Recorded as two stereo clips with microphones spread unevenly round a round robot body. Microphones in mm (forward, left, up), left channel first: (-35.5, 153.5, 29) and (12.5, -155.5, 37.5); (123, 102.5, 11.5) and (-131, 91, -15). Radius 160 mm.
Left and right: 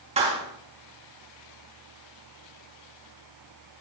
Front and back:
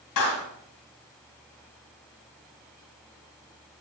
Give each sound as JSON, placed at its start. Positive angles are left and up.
{"t": 0.2, "sound": "a clap", "azimuth_deg": -10, "distance_m": 4.0}